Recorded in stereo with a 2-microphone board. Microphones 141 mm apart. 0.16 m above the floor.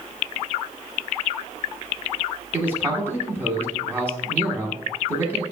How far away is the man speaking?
About 1.1 m.